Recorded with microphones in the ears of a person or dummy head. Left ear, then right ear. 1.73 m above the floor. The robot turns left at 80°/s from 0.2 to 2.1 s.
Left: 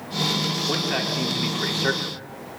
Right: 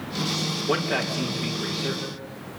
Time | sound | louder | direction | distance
0.7 | a man speaking | left 1 dB | 140° right | 4.5 m